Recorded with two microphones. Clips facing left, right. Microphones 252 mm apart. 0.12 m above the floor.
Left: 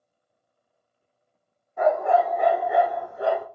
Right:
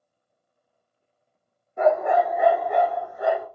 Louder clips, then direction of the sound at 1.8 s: Right 1 dB; 25° right (ahead or behind).